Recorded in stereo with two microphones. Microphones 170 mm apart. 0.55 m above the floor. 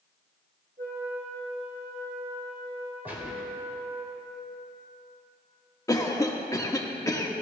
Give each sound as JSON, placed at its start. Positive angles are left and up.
{"t": 0.8, "sound": "a flute", "side_deg": -70, "distance_m": 5.0}
{"t": 3.0, "sound": "a gunshot", "side_deg": -10, "distance_m": 2.5}
{"t": 5.9, "sound": "a cough", "side_deg": 20, "distance_m": 1.1}